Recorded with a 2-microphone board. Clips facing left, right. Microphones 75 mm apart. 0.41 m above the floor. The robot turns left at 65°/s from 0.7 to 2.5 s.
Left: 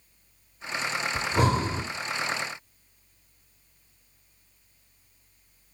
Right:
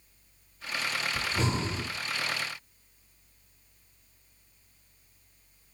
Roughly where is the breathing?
Left.